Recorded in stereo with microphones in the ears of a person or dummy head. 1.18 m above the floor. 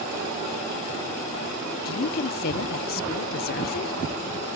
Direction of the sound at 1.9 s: 40° left (ahead or behind).